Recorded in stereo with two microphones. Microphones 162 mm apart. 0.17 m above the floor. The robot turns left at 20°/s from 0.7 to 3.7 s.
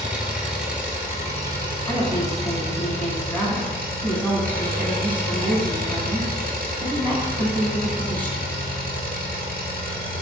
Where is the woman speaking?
20° left (ahead or behind), 1.1 m; by 8.5 s 10° left (ahead or behind), 1.1 m.